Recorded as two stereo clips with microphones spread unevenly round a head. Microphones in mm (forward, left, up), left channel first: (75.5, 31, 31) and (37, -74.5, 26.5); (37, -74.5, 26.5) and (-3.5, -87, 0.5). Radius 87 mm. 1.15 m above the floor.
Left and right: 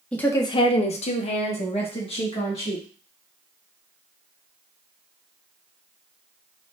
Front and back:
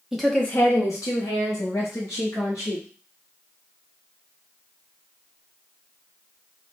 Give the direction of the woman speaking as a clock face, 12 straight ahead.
7 o'clock.